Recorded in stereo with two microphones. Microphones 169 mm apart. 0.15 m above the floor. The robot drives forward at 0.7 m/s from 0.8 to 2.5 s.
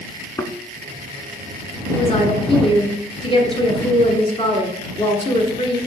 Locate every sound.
0.4 s a thud: 20° left (ahead or behind), 0.5 m
1.9 s a woman speaking: 35° left (ahead or behind), 1.5 m